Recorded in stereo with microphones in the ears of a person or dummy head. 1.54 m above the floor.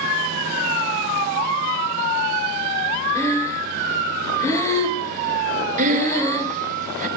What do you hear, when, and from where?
3.1 s breathing: 15° left (ahead or behind), 2.5 m
5.8 s breathing: 45° right (ahead or behind), 1.5 m